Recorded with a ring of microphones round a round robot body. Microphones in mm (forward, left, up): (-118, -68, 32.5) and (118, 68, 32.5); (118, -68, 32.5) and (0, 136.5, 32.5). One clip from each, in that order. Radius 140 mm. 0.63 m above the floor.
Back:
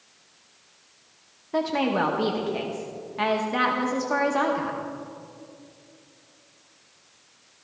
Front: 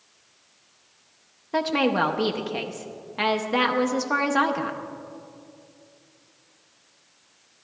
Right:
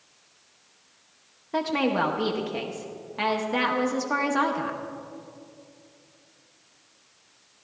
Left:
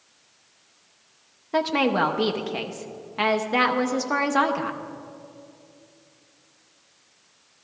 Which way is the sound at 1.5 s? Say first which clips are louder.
Front 2 dB, left 3 dB; 70° left.